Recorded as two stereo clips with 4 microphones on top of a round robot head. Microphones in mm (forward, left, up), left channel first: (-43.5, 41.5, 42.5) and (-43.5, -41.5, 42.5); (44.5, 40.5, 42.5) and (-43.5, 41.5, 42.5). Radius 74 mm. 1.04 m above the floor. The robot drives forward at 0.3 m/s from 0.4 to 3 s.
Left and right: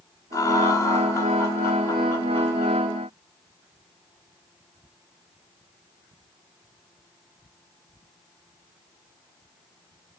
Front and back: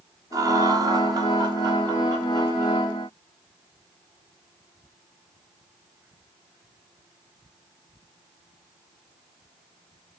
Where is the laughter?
135° left, 1.0 m; by 2.8 s 155° left, 1.6 m.